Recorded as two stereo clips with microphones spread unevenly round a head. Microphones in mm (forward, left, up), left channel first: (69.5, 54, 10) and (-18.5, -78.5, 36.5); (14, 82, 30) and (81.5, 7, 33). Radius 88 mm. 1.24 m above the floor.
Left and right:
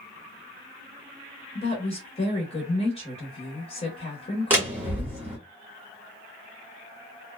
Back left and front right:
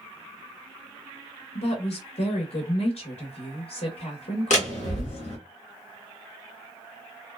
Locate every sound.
1.6 s a woman speaking: 110° left, 0.8 m
4.5 s a door slam: 160° left, 1.0 m